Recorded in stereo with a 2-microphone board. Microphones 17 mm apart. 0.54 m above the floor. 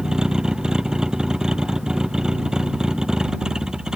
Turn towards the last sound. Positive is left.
turn(degrees=-45)  # may be behind; listen again after turning